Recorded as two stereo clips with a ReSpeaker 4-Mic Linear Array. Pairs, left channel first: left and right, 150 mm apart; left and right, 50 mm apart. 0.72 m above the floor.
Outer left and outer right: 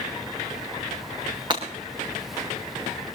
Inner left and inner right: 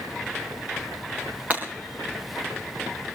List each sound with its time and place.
1.5 s breaking glass: 30° right (ahead or behind), 4.5 m